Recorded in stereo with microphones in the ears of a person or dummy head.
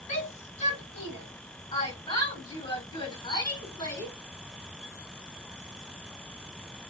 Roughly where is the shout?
Left.